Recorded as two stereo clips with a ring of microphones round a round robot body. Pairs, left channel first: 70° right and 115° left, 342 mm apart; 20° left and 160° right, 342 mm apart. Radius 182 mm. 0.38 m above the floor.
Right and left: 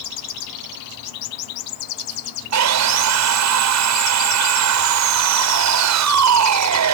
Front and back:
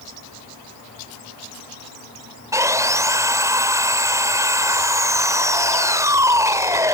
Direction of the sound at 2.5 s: 125° left.